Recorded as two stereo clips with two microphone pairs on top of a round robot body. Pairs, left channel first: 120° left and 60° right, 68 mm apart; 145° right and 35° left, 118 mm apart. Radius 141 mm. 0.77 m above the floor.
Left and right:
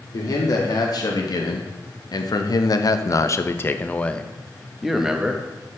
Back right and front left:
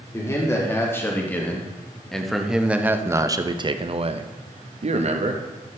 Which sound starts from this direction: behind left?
A man speaking, at 0.1 s.